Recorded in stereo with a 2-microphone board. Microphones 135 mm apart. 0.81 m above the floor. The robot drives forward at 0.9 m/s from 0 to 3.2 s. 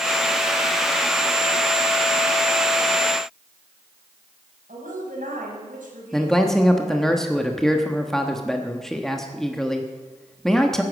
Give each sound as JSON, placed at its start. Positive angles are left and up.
{"t": 4.7, "sound": "a woman speaking", "side_deg": -85, "distance_m": 4.5}
{"t": 6.1, "sound": "a man speaking", "side_deg": 5, "distance_m": 1.2}